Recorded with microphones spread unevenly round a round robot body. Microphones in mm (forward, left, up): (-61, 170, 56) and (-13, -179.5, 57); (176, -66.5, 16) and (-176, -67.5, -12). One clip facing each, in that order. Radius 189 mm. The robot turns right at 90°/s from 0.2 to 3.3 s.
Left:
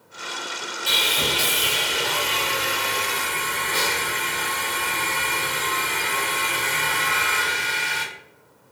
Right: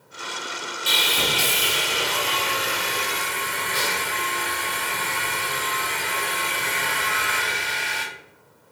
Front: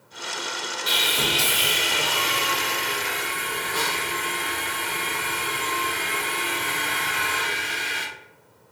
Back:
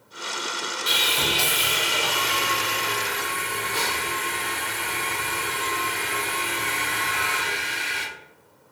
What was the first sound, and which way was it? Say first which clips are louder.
Sawing: even, front 1 dB; 105° right.